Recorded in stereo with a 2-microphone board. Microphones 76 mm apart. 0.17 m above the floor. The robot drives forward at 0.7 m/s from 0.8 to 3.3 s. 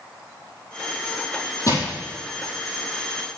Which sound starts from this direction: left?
Crushing, at 1.7 s.